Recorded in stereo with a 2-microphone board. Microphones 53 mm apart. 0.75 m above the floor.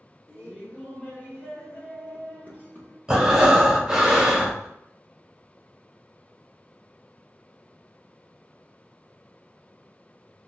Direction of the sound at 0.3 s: 30° left (ahead or behind).